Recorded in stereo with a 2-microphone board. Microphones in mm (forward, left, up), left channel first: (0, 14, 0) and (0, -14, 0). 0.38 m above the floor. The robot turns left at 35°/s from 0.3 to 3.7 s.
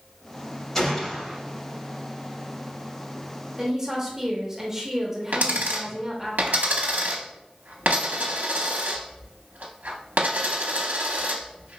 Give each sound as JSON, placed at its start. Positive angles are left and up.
{"t": 0.8, "sound": "a gunshot", "side_deg": 15, "distance_m": 0.7}
{"t": 3.6, "sound": "a woman speaking", "side_deg": -20, "distance_m": 0.8}
{"t": 5.3, "sound": "a dropped coin", "side_deg": -80, "distance_m": 0.6}